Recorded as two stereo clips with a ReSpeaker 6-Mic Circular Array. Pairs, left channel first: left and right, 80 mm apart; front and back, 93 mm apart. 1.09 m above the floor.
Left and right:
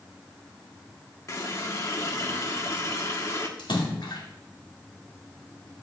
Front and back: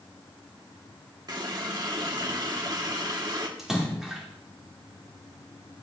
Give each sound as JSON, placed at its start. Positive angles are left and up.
{"t": 1.3, "sound": "a running tap", "azimuth_deg": 140, "distance_m": 1.4}
{"t": 3.6, "sound": "a splash", "azimuth_deg": 95, "distance_m": 2.5}